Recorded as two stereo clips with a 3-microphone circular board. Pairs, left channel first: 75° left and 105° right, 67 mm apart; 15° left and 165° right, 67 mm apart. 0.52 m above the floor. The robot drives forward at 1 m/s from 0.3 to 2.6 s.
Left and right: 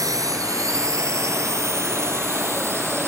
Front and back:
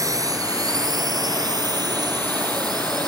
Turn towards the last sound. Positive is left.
turn(degrees=-160)